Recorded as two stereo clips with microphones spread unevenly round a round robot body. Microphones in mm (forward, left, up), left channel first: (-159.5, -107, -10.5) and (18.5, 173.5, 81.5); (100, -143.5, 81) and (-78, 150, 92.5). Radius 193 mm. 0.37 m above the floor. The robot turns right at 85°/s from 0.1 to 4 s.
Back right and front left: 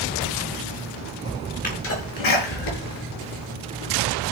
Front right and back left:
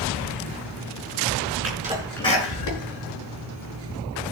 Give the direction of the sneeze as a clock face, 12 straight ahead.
6 o'clock.